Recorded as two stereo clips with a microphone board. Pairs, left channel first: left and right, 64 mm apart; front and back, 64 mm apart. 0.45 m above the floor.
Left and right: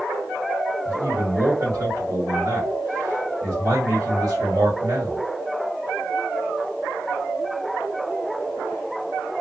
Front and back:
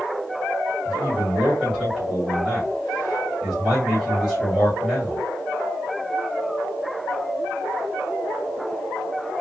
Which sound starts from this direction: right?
A man speaking, at 0.8 s.